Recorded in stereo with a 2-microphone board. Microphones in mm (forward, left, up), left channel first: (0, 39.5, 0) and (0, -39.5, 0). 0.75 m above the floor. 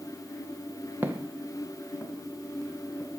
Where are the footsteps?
25° right (ahead or behind), 1.4 m; by 3.1 s 25° left (ahead or behind), 3.5 m.